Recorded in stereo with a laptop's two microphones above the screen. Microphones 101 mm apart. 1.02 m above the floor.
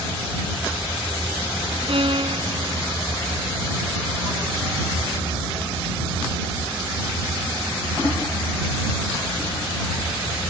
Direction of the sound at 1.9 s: 60° right (ahead or behind).